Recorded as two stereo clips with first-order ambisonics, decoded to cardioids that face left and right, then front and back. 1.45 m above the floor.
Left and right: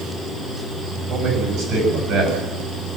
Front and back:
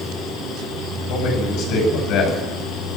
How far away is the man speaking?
About 7.5 m.